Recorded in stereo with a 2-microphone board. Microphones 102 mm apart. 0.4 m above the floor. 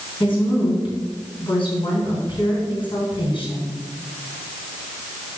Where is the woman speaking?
55° left (ahead or behind), 3.5 m.